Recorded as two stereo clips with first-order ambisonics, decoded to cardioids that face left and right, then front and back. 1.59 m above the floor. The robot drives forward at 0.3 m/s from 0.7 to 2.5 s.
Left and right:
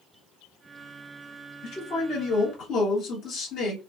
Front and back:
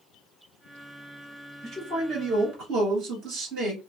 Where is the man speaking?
135° left, 1.2 m; by 3.8 s 145° left, 1.4 m.